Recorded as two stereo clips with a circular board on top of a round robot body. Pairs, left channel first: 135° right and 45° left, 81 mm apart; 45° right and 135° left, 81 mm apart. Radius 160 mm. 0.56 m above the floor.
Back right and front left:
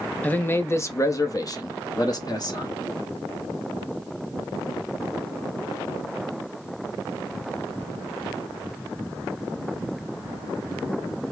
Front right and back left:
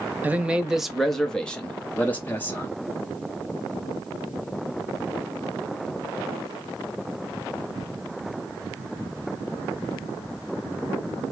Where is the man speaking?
175° left, 0.9 m; by 2.7 s 105° right, 1.7 m.